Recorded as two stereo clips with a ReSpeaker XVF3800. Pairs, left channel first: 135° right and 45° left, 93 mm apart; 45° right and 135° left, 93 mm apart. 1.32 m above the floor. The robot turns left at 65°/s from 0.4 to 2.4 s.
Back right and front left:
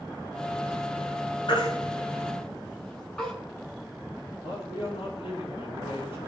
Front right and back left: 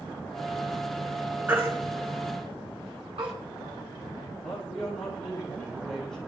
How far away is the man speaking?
About 9 m.